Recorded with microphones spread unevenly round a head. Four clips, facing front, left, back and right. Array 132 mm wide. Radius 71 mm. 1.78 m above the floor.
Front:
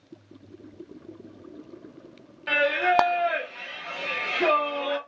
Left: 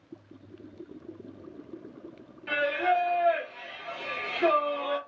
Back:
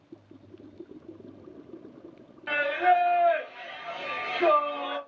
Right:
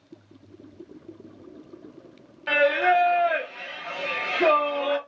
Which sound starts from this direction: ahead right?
Singing, at 2.5 s.